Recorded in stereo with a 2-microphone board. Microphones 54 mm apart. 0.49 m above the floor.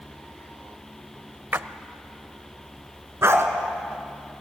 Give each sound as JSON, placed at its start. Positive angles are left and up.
{"t": 1.5, "sound": "a splash", "side_deg": -45, "distance_m": 0.6}
{"t": 3.2, "sound": "a dog barking", "side_deg": -55, "distance_m": 1.9}